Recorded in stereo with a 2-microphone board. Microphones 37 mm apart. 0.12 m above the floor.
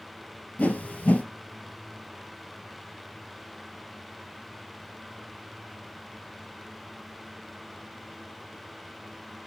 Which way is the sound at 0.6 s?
35° left (ahead or behind).